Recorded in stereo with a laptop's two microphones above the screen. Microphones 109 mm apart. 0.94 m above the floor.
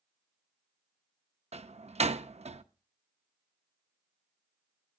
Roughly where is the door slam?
Right.